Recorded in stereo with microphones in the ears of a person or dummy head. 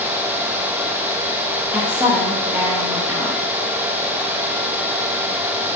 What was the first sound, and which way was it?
A woman speaking, 5° right (ahead or behind).